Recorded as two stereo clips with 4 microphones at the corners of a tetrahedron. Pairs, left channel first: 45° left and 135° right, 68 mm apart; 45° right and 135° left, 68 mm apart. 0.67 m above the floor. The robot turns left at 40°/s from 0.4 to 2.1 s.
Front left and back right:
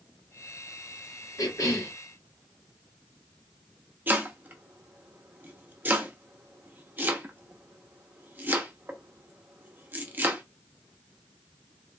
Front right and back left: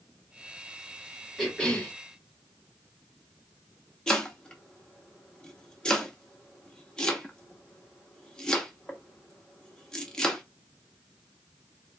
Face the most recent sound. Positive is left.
turn(degrees=-110)